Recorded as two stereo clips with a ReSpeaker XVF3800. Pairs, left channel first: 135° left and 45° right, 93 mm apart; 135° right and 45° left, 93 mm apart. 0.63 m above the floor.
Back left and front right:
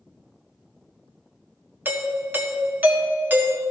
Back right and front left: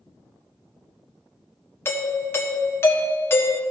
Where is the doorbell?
95° right, 1.3 m.